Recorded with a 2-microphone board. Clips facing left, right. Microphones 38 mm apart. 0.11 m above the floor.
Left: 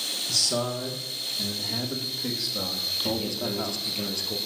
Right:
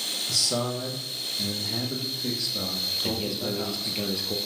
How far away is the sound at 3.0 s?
About 2 m.